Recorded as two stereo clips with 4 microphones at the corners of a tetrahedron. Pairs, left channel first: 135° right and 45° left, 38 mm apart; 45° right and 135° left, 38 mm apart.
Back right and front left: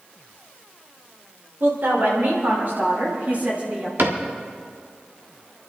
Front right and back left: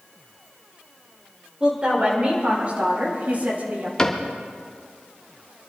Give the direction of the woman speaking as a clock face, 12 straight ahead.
10 o'clock.